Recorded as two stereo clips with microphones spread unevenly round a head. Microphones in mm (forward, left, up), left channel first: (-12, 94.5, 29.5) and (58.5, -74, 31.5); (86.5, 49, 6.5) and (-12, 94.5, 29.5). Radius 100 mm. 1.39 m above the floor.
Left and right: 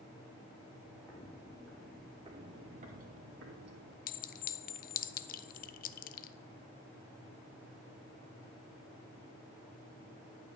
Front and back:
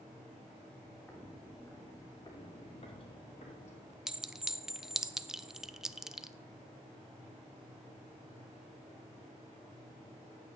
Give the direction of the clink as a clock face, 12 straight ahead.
9 o'clock.